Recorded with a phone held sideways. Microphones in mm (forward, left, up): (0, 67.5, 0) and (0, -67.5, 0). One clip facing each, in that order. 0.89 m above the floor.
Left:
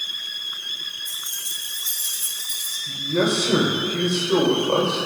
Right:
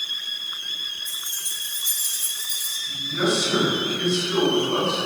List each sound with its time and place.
1.1 s keys jangling: 5° right (ahead or behind), 5 m; by 2.8 s 15° left (ahead or behind), 4 m
2.9 s a man speaking: 80° left, 4 m